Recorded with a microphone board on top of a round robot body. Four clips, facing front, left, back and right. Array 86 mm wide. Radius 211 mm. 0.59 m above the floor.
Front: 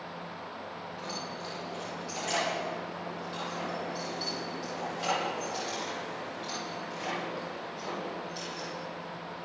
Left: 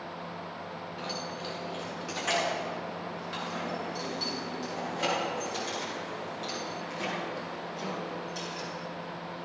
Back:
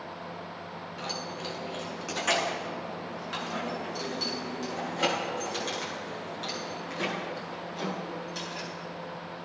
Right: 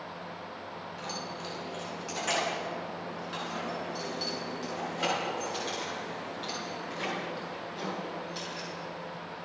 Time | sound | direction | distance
1.0 | keys jangling | 170° left | 5.5 m